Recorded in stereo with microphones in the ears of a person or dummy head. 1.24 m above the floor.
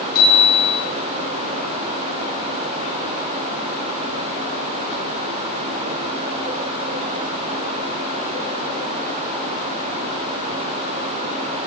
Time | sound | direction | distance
0.1 | a bicycle bell | 55° left (ahead or behind) | 9 m